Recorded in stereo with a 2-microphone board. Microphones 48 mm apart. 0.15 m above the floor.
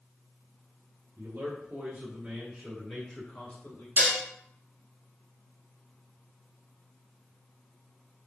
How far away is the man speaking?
About 1.8 m.